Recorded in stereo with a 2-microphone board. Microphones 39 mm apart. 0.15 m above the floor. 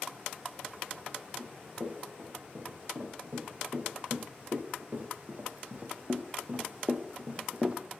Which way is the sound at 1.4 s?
45° right (ahead or behind).